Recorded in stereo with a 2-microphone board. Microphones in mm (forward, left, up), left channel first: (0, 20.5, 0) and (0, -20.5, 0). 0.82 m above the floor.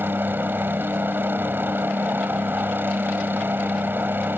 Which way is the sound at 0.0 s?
60° right (ahead or behind).